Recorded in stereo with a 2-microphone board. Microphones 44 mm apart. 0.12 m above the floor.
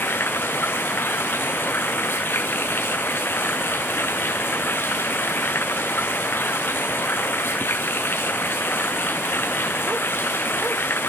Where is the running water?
60° left (ahead or behind), 0.8 m.